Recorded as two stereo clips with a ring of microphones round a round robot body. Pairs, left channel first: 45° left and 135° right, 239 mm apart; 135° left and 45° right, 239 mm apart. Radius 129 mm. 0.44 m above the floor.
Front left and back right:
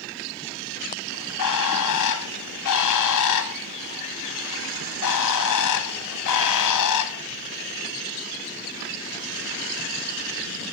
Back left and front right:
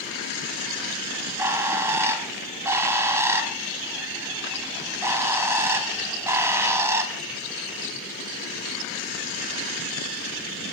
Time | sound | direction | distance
1.1 | a bird | 35° left | 0.8 m